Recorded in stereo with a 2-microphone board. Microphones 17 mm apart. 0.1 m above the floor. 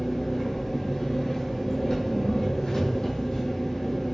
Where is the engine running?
50° left (ahead or behind), 1.5 m.